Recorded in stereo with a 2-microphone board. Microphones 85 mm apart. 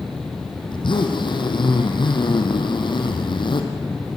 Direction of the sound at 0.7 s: 70° left (ahead or behind).